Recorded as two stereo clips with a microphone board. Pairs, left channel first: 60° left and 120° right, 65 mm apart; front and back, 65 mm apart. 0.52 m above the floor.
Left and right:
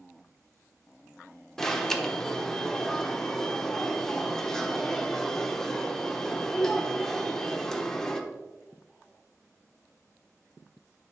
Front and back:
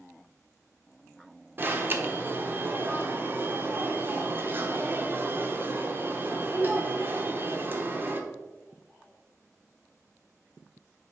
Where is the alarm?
140° left, 0.8 m.